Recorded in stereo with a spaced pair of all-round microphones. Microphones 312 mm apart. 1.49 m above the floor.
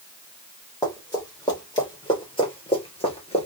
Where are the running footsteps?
10° left (ahead or behind), 3 m; by 3.5 s 20° left (ahead or behind), 1.6 m.